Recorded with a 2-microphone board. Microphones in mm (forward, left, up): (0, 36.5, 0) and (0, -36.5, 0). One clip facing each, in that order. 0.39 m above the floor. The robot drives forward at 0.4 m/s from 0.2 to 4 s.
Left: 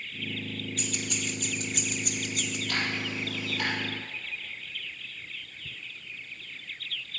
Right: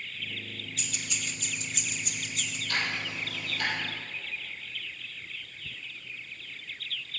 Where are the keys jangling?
50° left (ahead or behind), 1.9 m; by 2.6 s 60° left (ahead or behind), 1.6 m.